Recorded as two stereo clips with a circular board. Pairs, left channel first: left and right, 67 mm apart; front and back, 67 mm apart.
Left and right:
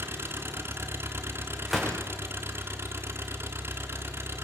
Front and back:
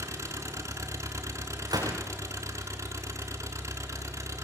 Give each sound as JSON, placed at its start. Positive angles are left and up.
{"t": 0.0, "sound": "an engine running", "azimuth_deg": -140, "distance_m": 3.0}
{"t": 1.7, "sound": "a gunshot", "azimuth_deg": 180, "distance_m": 6.0}